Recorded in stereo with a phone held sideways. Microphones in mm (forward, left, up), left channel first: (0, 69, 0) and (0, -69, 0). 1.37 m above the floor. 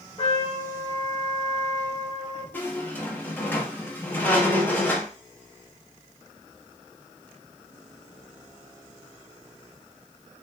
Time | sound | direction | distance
0.2 | a trumpet | 45° left (ahead or behind) | 0.9 m
2.5 | a squeak | 15° left (ahead or behind) | 0.7 m